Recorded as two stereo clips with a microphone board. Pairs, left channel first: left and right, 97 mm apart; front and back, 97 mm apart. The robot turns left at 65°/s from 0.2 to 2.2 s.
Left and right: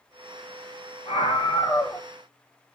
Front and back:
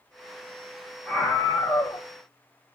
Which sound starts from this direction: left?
A scream, at 1.1 s.